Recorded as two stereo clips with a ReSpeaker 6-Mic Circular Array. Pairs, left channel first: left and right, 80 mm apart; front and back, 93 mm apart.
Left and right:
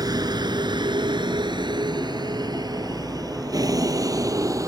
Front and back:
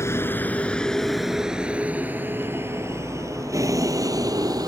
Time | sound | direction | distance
0.0 | a vehicle | 60° right | ?